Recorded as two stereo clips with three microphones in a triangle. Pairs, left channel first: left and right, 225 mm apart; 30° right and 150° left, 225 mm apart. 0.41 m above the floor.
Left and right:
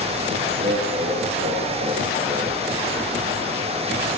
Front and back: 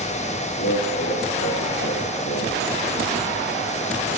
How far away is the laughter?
About 7.5 m.